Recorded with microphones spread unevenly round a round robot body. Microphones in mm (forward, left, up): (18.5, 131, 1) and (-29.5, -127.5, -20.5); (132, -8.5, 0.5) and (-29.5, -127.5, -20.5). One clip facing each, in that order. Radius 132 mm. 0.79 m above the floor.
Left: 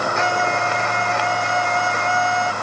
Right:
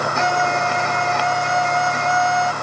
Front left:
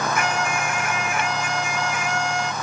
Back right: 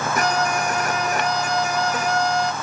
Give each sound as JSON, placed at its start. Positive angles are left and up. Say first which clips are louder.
{"t": 0.1, "sound": "a violin", "louder": "right 1 dB, back right 3 dB", "azimuth_deg": -90}